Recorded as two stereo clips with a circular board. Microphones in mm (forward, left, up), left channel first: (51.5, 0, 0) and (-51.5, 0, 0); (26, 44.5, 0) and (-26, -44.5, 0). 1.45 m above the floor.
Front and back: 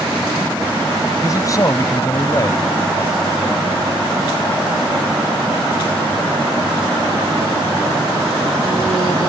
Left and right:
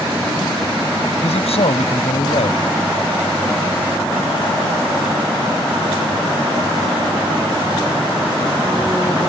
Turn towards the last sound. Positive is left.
turn(degrees=55)